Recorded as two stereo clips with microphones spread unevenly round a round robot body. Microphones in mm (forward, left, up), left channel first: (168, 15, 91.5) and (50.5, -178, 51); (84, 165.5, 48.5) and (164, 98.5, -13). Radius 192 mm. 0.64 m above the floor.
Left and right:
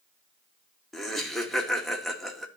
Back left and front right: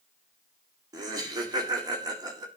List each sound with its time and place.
0.9 s laughter: 35° right, 1.8 m